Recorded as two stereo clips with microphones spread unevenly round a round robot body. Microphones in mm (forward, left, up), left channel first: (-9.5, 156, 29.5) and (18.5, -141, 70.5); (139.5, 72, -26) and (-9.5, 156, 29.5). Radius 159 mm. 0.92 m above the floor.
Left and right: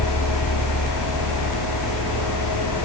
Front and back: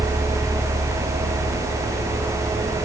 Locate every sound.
Only background noise.